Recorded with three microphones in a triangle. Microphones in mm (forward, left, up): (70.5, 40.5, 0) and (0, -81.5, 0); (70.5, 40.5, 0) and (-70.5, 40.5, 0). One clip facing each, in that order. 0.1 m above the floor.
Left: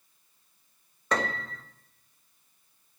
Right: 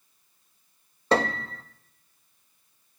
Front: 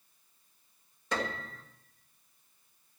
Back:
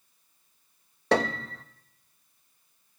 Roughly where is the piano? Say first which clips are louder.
Right 6 dB, back 10 dB; behind.